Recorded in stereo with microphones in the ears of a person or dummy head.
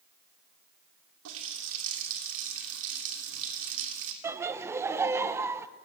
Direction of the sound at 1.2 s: 70° right (ahead or behind).